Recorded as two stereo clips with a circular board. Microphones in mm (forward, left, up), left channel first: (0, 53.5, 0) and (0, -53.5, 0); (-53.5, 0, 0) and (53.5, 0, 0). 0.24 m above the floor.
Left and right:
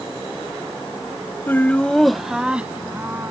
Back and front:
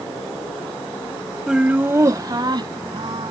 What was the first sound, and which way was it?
Laughter, 75° left.